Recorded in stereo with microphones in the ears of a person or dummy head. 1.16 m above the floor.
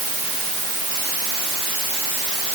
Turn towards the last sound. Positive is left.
No sound to turn to.